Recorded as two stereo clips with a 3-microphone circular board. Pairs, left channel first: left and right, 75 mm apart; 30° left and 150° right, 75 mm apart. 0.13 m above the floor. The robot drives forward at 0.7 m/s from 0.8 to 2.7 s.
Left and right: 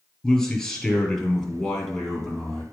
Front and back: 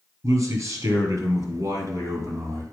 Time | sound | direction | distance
0.2 | a man speaking | 175° left | 2 m